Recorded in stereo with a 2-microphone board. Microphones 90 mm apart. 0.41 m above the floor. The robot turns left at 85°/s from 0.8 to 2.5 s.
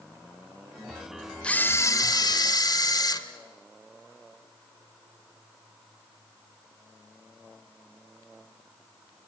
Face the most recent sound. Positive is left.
turn(degrees=75)